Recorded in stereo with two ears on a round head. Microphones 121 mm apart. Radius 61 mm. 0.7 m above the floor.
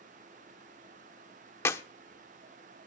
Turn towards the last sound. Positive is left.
turn(degrees=20)  # may be behind; listen again after turning